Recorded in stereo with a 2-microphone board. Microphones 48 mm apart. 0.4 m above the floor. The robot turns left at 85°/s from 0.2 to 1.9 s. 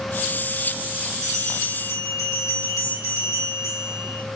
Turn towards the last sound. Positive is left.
turn(degrees=100)